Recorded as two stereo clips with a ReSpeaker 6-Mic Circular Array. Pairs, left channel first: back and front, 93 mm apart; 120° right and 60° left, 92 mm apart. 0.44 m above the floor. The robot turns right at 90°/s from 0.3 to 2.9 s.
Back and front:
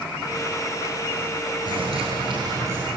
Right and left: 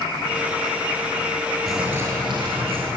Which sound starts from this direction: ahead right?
A bird, at 1.7 s.